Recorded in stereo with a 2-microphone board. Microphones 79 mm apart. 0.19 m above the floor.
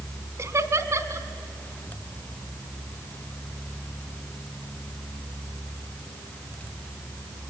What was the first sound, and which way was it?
Laughter, 40° right (ahead or behind).